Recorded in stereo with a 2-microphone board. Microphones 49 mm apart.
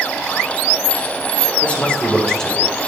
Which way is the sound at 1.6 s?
30° left (ahead or behind).